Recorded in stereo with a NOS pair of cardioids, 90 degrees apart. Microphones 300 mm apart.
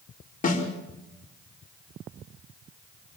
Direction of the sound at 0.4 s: 25° left.